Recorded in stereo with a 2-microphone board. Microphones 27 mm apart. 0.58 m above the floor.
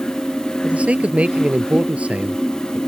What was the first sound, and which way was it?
A man speaking, 50° right (ahead or behind).